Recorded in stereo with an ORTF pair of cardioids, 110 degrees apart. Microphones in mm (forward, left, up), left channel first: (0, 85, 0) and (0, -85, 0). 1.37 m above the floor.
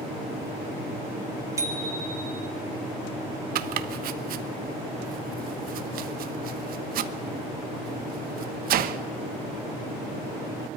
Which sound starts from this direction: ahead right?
Chopping, at 3.5 s.